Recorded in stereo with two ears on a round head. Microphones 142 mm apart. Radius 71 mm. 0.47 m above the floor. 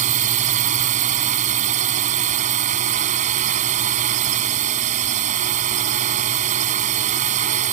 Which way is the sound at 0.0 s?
50° right (ahead or behind).